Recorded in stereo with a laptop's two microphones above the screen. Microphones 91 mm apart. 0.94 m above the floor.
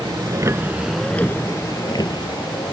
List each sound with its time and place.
0.0 s a vehicle: 55° right (ahead or behind); by 2.7 s 60° left (ahead or behind)